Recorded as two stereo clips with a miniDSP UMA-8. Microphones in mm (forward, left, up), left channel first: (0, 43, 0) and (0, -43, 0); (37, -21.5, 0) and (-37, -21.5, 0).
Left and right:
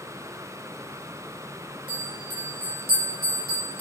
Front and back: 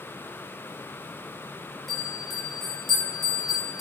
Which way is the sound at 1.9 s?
90° right.